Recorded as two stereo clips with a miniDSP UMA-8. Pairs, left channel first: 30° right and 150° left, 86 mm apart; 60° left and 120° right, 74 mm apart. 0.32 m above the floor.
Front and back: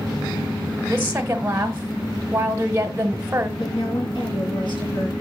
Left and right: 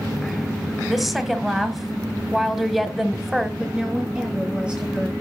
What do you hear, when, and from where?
0.9 s a woman speaking: 155° left, 0.9 m
3.6 s a woman speaking: 45° right, 3 m